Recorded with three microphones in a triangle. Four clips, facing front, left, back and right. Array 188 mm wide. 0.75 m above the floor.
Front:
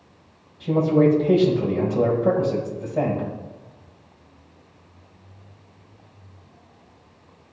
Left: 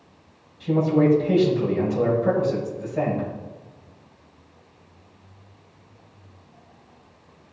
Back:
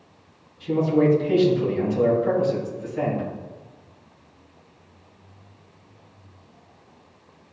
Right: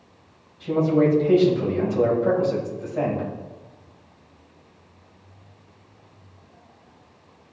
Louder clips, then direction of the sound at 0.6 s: Even, front 2 dB; straight ahead.